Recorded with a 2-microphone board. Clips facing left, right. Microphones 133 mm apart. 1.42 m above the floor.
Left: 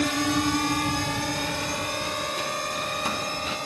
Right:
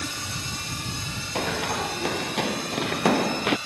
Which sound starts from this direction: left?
A drone, at 0.0 s.